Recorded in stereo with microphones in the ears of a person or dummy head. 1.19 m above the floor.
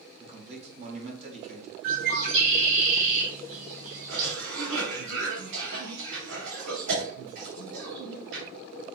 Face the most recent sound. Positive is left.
turn(degrees=-65)  # may be behind; listen again after turning